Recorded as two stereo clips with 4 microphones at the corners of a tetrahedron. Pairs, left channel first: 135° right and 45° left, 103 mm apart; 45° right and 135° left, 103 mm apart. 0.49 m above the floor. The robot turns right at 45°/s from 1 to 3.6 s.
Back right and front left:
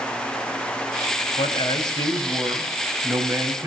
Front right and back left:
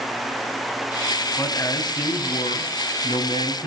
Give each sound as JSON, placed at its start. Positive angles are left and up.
{"t": 1.4, "sound": "a man speaking", "azimuth_deg": -110, "distance_m": 3.5}